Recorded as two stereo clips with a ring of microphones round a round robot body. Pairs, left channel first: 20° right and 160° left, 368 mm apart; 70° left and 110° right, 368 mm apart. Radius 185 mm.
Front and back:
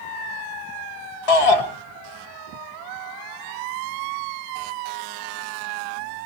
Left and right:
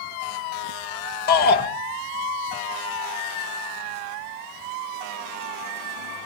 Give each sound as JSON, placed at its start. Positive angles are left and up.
{"t": 1.3, "sound": "a shout", "azimuth_deg": 0, "distance_m": 3.0}